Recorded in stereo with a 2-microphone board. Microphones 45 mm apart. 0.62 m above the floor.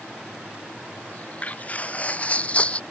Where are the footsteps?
30° left (ahead or behind); by 2.8 s 25° left (ahead or behind).